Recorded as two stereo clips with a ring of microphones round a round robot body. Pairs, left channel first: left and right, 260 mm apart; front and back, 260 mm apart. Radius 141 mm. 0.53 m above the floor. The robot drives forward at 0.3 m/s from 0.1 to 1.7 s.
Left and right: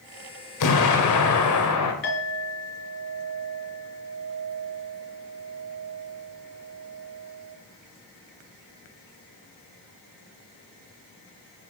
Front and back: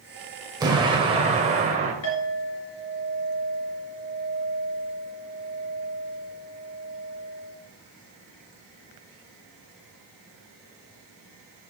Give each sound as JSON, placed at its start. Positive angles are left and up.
{"t": 0.6, "sound": "an explosion", "azimuth_deg": 105, "distance_m": 1.8}
{"t": 2.0, "sound": "a clink", "azimuth_deg": 40, "distance_m": 4.5}